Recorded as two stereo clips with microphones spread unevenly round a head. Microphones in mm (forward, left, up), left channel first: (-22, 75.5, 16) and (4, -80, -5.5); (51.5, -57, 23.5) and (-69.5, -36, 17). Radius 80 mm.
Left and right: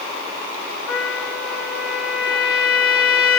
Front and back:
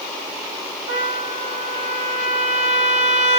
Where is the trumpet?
145° left, 2.0 m.